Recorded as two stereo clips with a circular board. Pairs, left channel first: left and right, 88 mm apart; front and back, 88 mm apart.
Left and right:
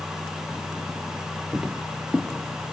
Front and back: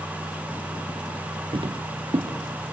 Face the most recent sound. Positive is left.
turn(degrees=160)